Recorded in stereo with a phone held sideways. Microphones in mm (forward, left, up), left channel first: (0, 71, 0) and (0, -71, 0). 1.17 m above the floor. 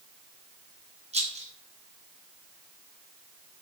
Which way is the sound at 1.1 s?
50° right (ahead or behind).